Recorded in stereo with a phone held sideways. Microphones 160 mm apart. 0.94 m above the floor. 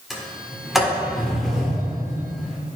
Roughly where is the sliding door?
Centre.